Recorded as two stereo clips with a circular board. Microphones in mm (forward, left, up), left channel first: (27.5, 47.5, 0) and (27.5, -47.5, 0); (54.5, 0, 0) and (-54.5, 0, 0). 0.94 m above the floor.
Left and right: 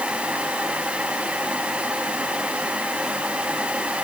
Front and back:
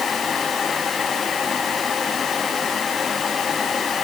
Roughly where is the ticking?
No ticking in this recording.